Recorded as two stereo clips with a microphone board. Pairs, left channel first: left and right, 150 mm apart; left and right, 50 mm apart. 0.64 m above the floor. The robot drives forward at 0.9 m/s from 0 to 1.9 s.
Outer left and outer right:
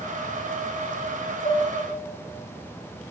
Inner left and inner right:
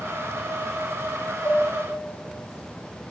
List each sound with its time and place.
1.4 s dishes clattering: 30° left (ahead or behind), 2.5 m; by 1.7 s 35° left (ahead or behind), 2 m